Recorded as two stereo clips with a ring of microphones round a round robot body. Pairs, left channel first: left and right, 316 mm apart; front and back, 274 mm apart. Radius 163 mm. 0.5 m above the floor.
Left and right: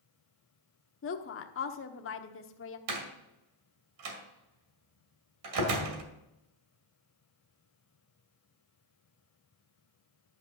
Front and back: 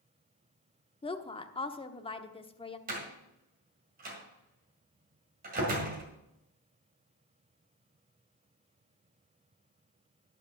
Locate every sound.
1.0 s a woman speaking: 65° left, 1.1 m
2.9 s a door slam: 115° right, 2 m